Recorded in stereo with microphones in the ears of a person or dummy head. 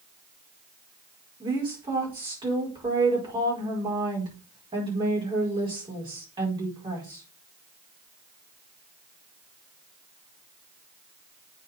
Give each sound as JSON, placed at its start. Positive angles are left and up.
{"t": 1.4, "sound": "a woman speaking", "side_deg": -25, "distance_m": 5.0}